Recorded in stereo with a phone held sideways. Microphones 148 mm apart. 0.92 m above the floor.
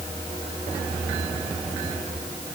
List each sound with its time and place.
Only background noise.